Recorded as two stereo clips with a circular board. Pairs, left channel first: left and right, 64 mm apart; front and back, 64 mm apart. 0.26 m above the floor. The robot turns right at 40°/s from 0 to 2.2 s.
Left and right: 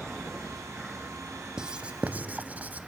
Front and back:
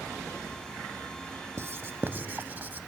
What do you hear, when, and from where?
1.6 s writing: 165° right, 0.8 m; by 2.9 s 140° right, 0.8 m